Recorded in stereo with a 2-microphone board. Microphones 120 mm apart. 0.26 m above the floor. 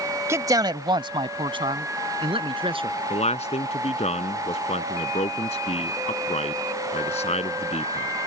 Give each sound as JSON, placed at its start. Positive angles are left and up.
{"t": 0.3, "sound": "a man speaking", "side_deg": -25}
{"t": 3.1, "sound": "a man speaking", "side_deg": 65}